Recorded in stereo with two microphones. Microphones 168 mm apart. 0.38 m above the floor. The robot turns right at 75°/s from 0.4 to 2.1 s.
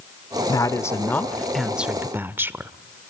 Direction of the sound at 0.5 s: 20° left (ahead or behind).